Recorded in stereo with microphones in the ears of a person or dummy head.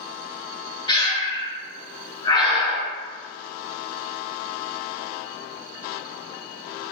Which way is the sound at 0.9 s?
25° left (ahead or behind).